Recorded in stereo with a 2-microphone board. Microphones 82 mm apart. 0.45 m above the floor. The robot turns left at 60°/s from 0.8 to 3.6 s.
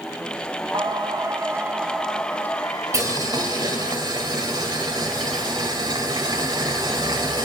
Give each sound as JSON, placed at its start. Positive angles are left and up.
{"t": 0.7, "sound": "singing", "azimuth_deg": -105, "distance_m": 0.9}
{"t": 2.9, "sound": "boiling", "azimuth_deg": -50, "distance_m": 2.5}